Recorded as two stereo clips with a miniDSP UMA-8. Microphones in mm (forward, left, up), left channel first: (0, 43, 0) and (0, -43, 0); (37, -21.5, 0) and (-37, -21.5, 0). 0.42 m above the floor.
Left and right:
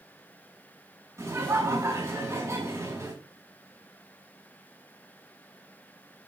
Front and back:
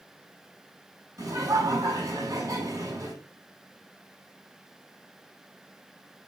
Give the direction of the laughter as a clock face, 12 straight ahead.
5 o'clock.